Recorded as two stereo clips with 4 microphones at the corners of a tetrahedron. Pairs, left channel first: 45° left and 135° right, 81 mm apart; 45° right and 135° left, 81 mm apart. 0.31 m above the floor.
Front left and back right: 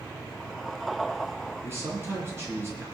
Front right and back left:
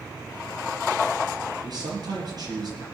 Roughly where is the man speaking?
Behind.